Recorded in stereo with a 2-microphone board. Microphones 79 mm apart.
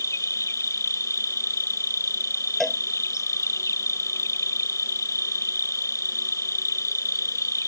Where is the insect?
45° left (ahead or behind).